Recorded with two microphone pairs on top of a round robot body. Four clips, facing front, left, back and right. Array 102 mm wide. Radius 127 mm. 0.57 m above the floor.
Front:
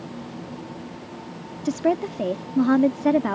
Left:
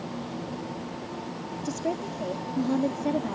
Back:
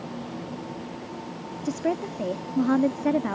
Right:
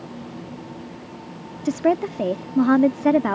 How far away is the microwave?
No microwave in this recording.